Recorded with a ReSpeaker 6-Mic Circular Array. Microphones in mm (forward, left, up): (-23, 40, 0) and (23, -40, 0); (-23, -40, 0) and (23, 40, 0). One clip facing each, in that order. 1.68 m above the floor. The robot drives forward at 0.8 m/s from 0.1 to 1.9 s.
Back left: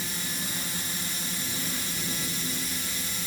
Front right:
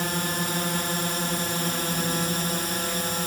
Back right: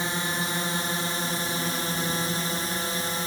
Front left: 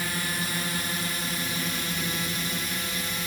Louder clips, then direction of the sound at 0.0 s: Front right 9 dB, back right 2 dB; 60° right.